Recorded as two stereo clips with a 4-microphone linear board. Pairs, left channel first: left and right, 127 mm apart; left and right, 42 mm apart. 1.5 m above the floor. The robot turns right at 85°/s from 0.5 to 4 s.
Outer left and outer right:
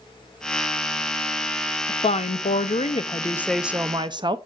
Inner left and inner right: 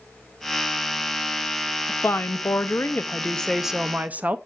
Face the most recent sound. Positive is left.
turn(degrees=-145)